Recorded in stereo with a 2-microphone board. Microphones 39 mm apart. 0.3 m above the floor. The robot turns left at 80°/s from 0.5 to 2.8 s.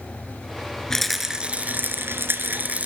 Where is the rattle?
15° left, 3 m; by 2.9 s 135° right, 3 m.